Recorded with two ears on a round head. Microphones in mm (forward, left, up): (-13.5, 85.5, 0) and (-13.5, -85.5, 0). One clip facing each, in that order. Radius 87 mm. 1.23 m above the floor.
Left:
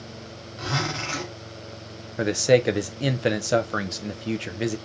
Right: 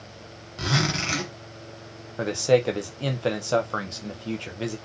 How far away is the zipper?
About 1.7 m.